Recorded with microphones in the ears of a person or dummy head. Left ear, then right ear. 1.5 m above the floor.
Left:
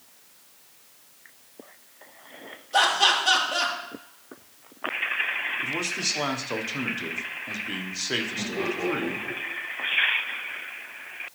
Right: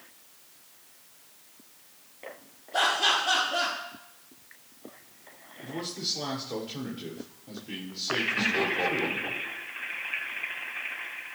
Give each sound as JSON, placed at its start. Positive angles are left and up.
{"t": 2.7, "sound": "laughter", "side_deg": 60, "distance_m": 3.0}
{"t": 5.6, "sound": "a man speaking", "side_deg": 55, "distance_m": 1.0}
{"t": 8.4, "sound": "laughter", "side_deg": -55, "distance_m": 2.5}